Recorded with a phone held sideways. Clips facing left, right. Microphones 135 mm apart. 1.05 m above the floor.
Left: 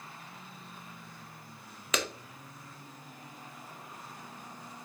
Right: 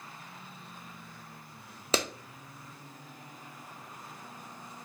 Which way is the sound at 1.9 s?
30° right (ahead or behind).